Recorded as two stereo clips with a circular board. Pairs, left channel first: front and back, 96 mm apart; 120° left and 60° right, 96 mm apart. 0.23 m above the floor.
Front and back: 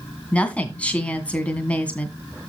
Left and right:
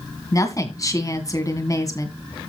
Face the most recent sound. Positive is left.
turn(degrees=75)